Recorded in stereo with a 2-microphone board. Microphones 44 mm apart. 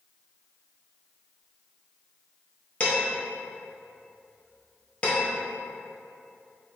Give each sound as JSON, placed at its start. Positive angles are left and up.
{"t": 2.8, "sound": "dishes clattering", "side_deg": 25, "distance_m": 1.4}